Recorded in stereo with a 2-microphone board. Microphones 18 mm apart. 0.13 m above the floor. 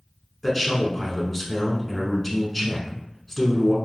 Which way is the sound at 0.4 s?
10° left (ahead or behind).